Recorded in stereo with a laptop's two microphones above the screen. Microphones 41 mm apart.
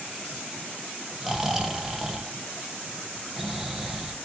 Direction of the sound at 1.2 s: 10° right (ahead or behind).